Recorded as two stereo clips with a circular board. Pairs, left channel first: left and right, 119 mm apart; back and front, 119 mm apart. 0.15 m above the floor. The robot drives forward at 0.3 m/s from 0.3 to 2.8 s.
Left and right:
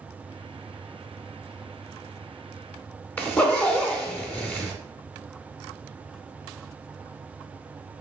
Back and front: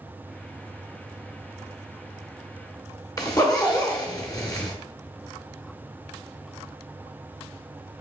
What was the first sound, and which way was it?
A zipper, 155° left.